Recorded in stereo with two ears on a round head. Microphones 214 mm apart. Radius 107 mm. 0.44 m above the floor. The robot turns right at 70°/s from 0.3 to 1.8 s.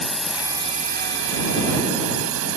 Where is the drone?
Straight behind; by 2.6 s 75° right.